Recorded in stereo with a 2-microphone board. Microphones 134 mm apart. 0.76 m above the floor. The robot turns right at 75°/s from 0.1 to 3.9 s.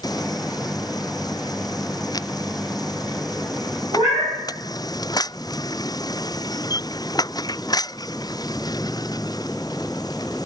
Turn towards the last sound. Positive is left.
turn(degrees=-45)  # may be behind; listen again after turning